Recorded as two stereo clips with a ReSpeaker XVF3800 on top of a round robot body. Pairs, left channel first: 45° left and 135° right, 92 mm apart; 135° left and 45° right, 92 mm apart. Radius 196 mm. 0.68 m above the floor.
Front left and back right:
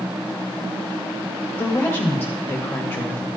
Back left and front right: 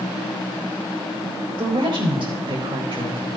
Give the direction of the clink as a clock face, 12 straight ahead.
No clink in this recording.